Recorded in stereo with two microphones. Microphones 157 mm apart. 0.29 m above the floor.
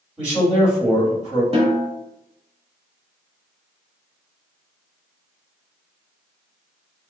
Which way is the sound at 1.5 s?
40° right (ahead or behind).